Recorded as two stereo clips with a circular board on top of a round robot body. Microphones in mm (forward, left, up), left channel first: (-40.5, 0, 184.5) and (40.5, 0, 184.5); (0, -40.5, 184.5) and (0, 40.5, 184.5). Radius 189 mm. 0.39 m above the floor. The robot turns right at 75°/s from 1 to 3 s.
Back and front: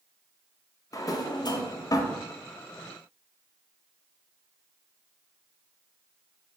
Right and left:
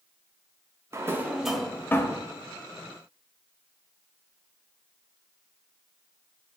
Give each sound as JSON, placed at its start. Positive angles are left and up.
{"t": 0.9, "sound": "a drawer", "azimuth_deg": 140, "distance_m": 0.6}